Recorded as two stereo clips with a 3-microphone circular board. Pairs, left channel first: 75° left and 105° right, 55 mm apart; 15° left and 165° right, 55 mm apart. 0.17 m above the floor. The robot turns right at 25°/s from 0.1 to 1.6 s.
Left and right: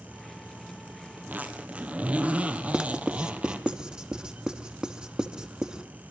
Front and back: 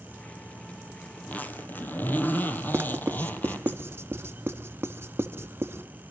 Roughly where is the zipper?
Ahead right.